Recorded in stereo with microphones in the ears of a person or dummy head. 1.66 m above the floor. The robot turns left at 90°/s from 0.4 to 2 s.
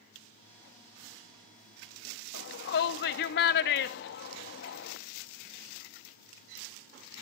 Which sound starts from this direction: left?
A shout, at 2.3 s.